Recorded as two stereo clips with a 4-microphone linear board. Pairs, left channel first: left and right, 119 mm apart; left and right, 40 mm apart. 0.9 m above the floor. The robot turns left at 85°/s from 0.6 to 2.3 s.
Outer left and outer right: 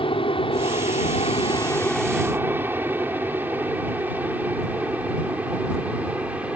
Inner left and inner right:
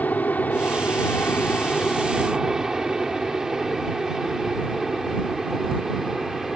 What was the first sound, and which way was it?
An aircraft, 50° left (ahead or behind).